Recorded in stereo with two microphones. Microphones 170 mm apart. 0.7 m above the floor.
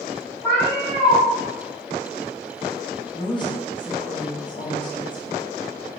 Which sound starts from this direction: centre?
A cat meowing, at 0.4 s.